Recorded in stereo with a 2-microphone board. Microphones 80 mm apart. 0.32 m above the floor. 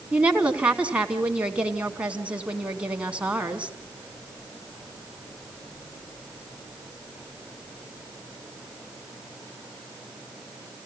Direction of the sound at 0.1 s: 15° right (ahead or behind).